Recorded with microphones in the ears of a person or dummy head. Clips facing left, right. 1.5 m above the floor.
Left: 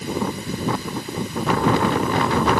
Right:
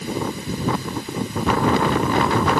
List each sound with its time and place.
Only background noise.